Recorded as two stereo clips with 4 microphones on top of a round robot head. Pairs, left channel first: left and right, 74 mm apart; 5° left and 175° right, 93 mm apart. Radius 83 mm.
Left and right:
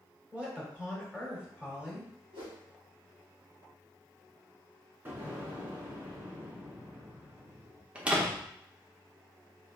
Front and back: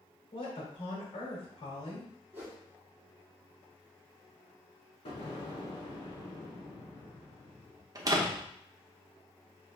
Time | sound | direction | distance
0.3 | a woman speaking | 10° right | 2 m
2.3 | a whoosh | 105° right | 2 m
5.0 | an explosion | 25° right | 1.9 m
8.0 | a door slam | 155° right | 0.9 m